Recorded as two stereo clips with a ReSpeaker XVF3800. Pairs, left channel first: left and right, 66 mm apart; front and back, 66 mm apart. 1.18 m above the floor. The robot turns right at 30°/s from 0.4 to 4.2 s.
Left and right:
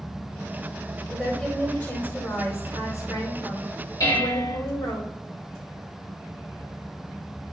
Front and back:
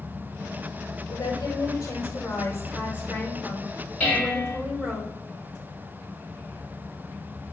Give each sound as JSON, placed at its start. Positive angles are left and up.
{"t": 1.1, "sound": "a woman speaking", "azimuth_deg": 5, "distance_m": 5.0}
{"t": 4.0, "sound": "dishes clattering", "azimuth_deg": 70, "distance_m": 4.0}